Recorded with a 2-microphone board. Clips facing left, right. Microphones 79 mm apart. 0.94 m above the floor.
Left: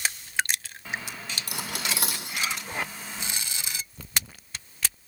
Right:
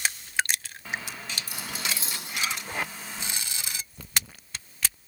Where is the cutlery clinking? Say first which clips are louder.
Left 2 dB; 75° left (ahead or behind), 2 m.